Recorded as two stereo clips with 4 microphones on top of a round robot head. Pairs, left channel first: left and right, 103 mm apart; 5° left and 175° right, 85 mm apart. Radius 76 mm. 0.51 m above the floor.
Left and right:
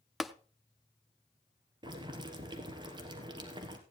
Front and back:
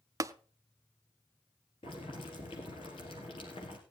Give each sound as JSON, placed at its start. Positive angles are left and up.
{"t": 0.2, "sound": "tapping", "azimuth_deg": 180, "distance_m": 0.6}
{"t": 1.8, "sound": "boiling", "azimuth_deg": -45, "distance_m": 2.5}